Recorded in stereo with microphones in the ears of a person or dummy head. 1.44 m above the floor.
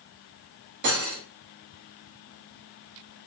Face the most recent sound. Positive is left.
turn(degrees=-55)  # may be behind; listen again after turning